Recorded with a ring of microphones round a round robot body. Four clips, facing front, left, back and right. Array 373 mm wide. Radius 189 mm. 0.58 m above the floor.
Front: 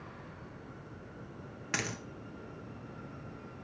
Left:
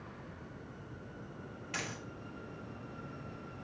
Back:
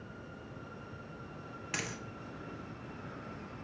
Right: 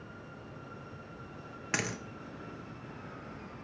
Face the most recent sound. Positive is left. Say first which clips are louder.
# right 7 dB, front 4 dB
turn(degrees=-70)